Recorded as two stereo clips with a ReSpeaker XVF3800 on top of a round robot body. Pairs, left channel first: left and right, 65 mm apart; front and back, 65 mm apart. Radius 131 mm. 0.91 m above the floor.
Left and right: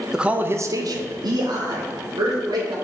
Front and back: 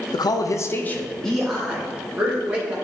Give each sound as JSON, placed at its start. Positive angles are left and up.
{"t": 0.1, "sound": "a man speaking", "azimuth_deg": -5, "distance_m": 0.7}